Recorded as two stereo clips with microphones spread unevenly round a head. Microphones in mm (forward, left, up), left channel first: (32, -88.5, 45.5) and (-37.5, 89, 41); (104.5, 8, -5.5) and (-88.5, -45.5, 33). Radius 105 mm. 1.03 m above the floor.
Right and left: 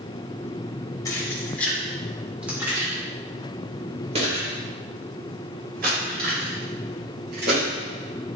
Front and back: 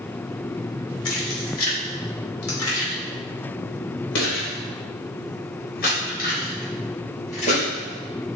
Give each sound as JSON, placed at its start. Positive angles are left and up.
{"t": 1.1, "sound": "keys jangling", "azimuth_deg": 5, "distance_m": 2.5}